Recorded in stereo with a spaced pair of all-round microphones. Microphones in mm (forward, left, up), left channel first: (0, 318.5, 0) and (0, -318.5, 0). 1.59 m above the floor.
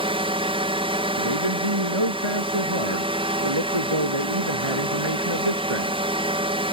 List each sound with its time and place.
0.0 s a drone: 10° right (ahead or behind)
1.2 s a man speaking: 45° right (ahead or behind)